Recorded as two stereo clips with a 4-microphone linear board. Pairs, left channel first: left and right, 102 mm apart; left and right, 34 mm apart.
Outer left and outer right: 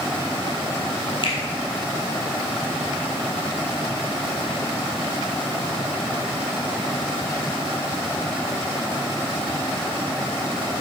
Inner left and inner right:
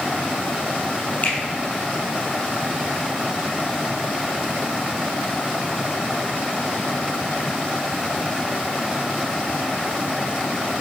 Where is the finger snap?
45° left (ahead or behind), 2.5 m.